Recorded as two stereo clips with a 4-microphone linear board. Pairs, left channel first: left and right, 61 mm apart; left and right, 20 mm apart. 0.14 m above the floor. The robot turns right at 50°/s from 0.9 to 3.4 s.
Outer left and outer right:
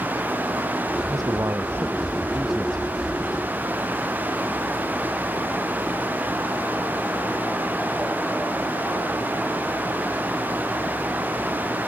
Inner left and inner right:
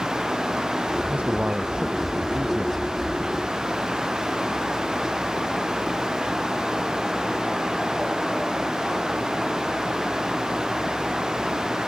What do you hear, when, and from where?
1.1 s a man speaking: 75° right; by 3.0 s 20° left